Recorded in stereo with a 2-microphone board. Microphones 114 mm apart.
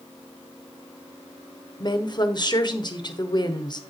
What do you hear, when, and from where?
1.8 s a woman speaking: 40° left (ahead or behind), 1.0 m